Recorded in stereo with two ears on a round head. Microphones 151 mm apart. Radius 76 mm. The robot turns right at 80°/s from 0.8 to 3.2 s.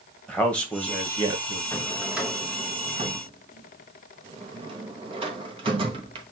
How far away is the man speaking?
About 1.3 m.